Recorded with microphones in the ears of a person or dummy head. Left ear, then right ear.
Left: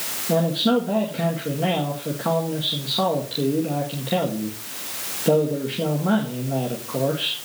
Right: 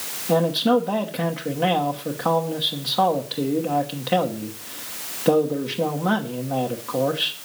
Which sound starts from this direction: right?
A man speaking, at 0.3 s.